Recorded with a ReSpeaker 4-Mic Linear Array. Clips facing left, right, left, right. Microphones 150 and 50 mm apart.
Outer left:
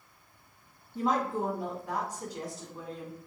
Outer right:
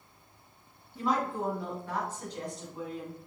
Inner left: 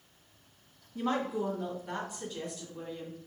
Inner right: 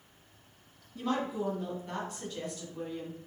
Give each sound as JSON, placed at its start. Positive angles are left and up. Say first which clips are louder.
{"t": 0.9, "sound": "a woman speaking", "louder": "outer left 1 dB, inner left 1 dB", "side_deg": 25, "distance_m": 2.5}